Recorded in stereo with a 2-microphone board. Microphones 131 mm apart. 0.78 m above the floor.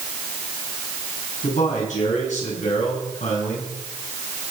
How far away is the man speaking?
About 6.5 m.